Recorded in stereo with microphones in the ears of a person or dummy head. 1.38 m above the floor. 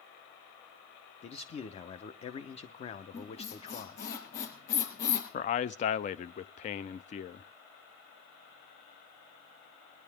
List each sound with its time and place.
1.2 s a man speaking: 35° left (ahead or behind), 0.8 m
3.1 s a squeak: 70° left (ahead or behind), 4.5 m
5.3 s a man speaking: 40° left (ahead or behind), 0.5 m